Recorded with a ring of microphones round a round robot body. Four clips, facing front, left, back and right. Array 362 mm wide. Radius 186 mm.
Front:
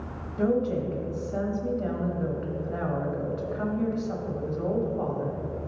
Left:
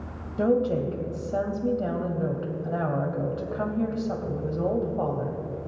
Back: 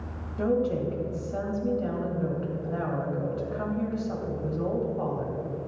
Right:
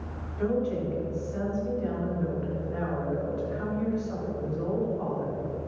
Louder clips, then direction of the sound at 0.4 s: Left 5 dB, even; 90° left.